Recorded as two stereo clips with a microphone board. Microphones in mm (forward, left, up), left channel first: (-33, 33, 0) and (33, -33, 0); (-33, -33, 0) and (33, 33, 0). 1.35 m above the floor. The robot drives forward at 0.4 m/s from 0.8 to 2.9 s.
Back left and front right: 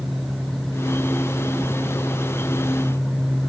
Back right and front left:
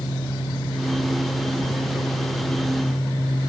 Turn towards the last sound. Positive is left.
No sound to turn to.